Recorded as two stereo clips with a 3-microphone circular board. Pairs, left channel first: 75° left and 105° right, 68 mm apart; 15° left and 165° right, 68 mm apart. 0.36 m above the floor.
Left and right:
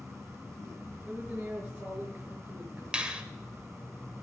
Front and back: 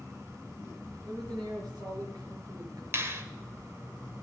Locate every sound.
1.1 s a man speaking: straight behind, 5.5 m
2.9 s a finger snap: 170° right, 1.3 m